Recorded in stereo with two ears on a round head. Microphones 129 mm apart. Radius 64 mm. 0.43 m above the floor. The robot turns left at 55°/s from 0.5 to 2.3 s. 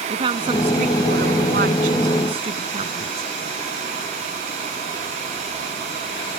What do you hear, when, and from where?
0.1 s a woman speaking: 40° right; by 3.3 s 135° right